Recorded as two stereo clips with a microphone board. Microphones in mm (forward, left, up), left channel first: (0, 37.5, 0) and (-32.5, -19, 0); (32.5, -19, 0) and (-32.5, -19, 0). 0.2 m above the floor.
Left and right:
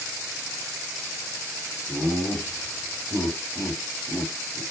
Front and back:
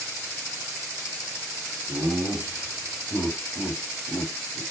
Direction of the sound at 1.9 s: 110° left.